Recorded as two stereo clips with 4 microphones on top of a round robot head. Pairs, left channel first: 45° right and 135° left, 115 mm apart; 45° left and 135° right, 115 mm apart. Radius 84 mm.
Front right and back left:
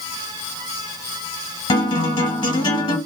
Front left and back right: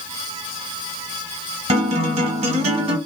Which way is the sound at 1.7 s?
100° right.